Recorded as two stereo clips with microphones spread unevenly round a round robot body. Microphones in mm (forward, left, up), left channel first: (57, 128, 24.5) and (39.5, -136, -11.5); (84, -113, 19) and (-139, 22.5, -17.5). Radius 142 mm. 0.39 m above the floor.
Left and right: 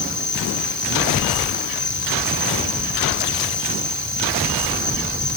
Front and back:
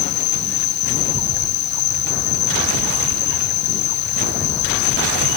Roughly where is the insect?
Ahead right.